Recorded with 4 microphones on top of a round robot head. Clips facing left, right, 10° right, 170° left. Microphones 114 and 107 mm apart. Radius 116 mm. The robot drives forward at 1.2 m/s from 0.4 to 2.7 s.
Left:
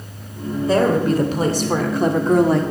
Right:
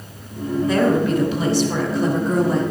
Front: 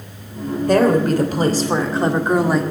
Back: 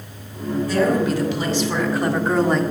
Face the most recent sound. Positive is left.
turn(degrees=80)